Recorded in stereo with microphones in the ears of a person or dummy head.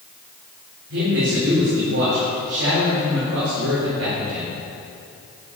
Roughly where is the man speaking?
Right.